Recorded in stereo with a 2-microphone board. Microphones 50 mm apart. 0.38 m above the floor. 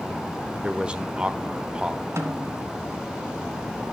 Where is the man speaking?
20° right (ahead or behind), 0.8 m.